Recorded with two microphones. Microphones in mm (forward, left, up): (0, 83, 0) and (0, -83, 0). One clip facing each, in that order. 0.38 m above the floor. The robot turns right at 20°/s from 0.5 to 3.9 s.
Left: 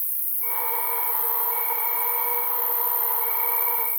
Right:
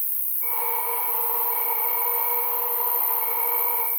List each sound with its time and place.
0.0 s an insect: 85° right, 1.7 m; by 4.0 s 15° right, 1.7 m